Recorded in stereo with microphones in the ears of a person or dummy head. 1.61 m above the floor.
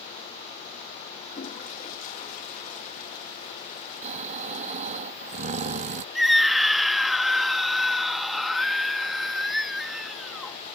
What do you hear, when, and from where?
1.3 s a toilet flushing: 45° left (ahead or behind)
4.0 s snoring: 40° right (ahead or behind)
6.2 s a scream: 5° right (ahead or behind)